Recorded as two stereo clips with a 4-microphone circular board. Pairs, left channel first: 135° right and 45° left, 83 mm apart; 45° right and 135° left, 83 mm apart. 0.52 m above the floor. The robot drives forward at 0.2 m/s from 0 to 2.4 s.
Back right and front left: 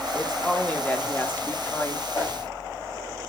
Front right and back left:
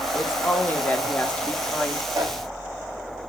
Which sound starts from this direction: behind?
A whoosh, at 2.1 s.